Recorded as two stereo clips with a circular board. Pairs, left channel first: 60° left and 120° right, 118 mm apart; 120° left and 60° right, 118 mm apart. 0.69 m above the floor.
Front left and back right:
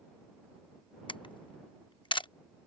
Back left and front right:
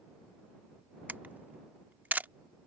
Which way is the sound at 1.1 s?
15° left.